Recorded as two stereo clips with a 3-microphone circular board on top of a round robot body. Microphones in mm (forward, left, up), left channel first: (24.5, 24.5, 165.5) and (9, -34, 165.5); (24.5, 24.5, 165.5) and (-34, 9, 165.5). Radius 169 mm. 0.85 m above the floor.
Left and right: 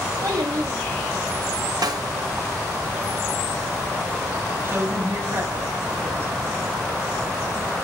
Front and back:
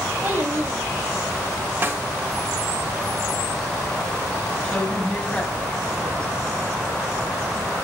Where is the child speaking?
110° right, 1.7 m; by 1.7 s 150° right, 3 m.